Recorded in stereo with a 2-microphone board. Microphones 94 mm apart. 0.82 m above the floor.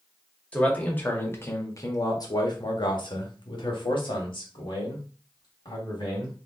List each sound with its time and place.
0.5 s a man speaking: 15° left (ahead or behind), 1.6 m; by 6.4 s 60° left (ahead or behind), 2.5 m